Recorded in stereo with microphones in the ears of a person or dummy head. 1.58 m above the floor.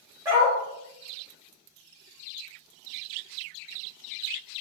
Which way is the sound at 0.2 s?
15° right (ahead or behind).